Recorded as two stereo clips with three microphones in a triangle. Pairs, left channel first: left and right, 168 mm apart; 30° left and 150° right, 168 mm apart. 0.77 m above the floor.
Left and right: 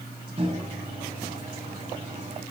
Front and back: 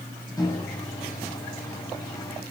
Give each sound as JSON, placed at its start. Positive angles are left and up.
{"t": 0.4, "sound": "a microwave", "azimuth_deg": -40, "distance_m": 5.0}